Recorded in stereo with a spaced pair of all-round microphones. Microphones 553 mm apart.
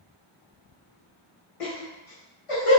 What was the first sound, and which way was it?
Laughter, 80° left.